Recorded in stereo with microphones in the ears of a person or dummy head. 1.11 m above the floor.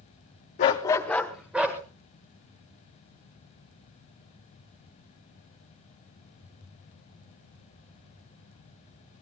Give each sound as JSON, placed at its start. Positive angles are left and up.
{"t": 0.6, "sound": "a dog barking", "side_deg": 35, "distance_m": 0.8}